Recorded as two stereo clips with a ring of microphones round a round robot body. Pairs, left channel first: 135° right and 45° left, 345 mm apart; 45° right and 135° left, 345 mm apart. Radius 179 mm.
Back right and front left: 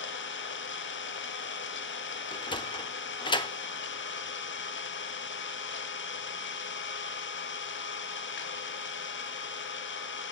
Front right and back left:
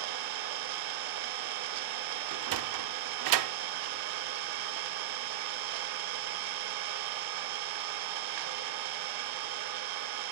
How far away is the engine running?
About 0.9 m.